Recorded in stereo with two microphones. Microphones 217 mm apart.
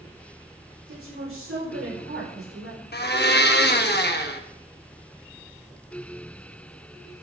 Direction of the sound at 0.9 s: 85° right.